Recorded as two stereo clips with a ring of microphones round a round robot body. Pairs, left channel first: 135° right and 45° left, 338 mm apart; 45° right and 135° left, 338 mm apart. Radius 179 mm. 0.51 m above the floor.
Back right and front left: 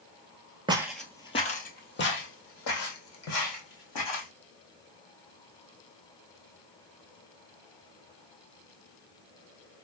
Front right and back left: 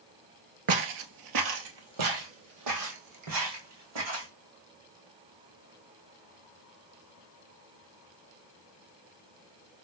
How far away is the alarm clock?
I don't hear an alarm clock.